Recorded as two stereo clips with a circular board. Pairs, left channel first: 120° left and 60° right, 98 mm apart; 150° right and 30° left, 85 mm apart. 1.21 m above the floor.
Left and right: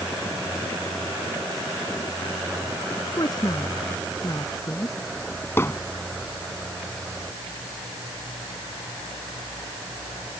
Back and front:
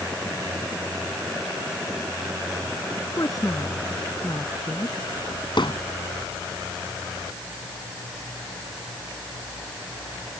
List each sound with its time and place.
2.9 s a woman speaking: 165° left; by 5.0 s 175° left
5.6 s hammering: 175° right